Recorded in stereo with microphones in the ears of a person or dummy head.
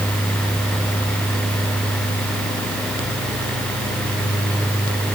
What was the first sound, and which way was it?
Only background noise.